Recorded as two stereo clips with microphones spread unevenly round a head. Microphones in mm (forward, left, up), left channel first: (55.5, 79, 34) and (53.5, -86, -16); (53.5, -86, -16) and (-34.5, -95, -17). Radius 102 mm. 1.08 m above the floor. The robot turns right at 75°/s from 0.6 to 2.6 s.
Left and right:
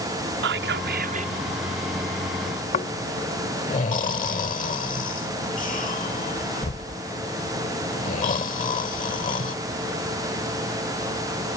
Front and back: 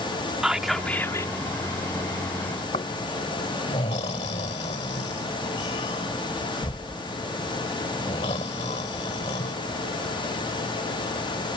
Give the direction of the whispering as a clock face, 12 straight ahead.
3 o'clock.